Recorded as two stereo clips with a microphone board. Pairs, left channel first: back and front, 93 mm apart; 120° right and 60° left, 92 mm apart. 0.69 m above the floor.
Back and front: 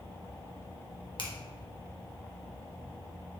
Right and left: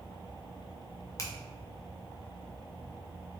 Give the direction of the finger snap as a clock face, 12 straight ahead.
6 o'clock.